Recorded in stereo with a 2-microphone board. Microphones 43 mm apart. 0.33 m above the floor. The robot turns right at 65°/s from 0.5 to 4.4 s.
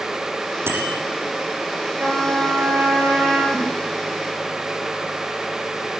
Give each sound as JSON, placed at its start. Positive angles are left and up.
{"t": 0.7, "sound": "a bicycle bell", "side_deg": -65, "distance_m": 6.5}
{"t": 2.0, "sound": "a trumpet", "azimuth_deg": -125, "distance_m": 4.5}
{"t": 3.5, "sound": "a giggle", "side_deg": 5, "distance_m": 2.5}